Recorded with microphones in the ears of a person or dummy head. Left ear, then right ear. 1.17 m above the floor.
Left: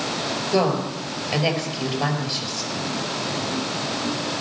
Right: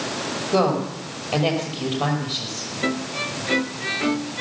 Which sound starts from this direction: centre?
A woman speaking, at 0.5 s.